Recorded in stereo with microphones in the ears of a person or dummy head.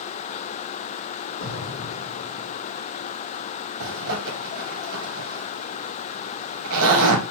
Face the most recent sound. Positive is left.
turn(degrees=-70)  # may be behind; listen again after turning